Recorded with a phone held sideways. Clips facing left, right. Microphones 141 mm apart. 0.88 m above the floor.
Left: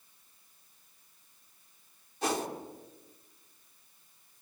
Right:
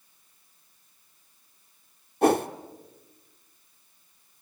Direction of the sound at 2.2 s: 55° right (ahead or behind).